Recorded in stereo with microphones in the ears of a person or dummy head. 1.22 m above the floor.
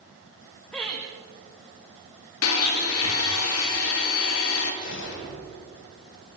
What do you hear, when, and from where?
0.7 s laughter: 5° left (ahead or behind), 1.5 m
2.4 s a blender: 80° left, 2 m
4.8 s a gunshot: 65° left (ahead or behind), 2 m